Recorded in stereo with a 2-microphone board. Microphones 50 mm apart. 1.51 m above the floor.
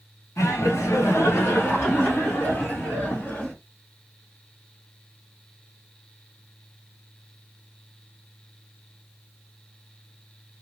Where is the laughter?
75° left (ahead or behind), 1.1 m; by 3.5 s 35° left (ahead or behind), 2.5 m.